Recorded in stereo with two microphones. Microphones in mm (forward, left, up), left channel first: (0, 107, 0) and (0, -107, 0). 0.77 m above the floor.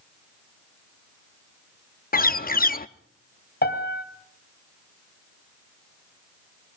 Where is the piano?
50° left (ahead or behind), 2.5 m.